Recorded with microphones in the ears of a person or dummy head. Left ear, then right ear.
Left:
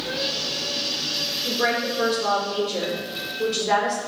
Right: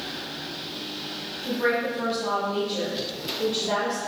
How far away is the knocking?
No knocking in this recording.